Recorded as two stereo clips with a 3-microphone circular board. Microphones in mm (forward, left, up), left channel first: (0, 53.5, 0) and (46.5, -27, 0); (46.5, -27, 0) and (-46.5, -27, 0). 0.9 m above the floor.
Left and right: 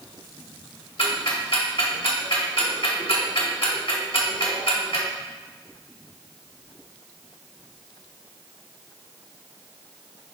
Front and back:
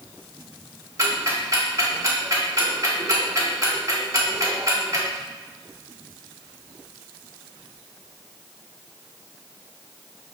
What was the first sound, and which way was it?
Ticking, 125° left.